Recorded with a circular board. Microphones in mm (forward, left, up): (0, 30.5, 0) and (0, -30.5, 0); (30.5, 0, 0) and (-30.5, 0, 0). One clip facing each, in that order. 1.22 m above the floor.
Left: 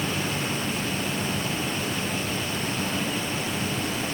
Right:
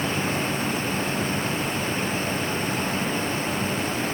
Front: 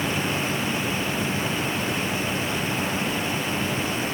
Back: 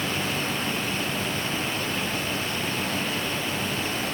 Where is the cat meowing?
I don't hear a cat meowing.